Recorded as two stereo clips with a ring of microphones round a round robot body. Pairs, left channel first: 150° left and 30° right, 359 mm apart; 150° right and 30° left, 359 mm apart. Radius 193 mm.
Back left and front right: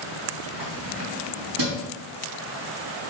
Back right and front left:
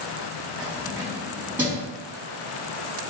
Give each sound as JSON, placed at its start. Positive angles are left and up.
{"t": 0.6, "sound": "keys jangling", "azimuth_deg": -55, "distance_m": 4.0}